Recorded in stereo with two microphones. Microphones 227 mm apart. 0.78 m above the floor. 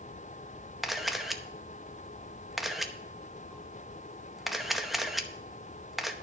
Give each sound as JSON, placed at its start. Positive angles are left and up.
{"t": 0.8, "sound": "a camera shutter", "side_deg": 0, "distance_m": 0.8}